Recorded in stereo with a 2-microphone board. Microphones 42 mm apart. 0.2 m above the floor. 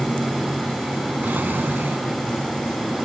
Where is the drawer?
50° right (ahead or behind), 1.0 m.